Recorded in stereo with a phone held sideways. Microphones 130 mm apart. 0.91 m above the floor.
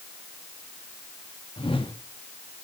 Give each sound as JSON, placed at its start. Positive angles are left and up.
{"t": 1.6, "sound": "a whoosh", "side_deg": 40, "distance_m": 1.9}